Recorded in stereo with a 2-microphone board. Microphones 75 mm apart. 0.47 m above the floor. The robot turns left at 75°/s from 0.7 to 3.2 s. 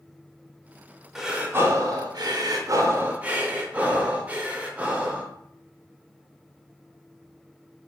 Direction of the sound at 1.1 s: 5° right.